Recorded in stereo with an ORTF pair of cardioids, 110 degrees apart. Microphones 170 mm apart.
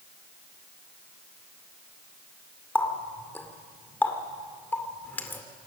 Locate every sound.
2.8 s a running tap: 10° left, 2.5 m